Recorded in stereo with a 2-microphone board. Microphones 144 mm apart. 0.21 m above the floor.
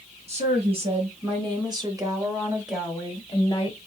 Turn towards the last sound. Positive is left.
turn(degrees=25)  # may be behind; listen again after turning